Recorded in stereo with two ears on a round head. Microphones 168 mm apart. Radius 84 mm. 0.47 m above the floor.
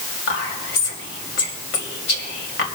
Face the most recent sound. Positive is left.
turn(degrees=70)  # may be behind; listen again after turning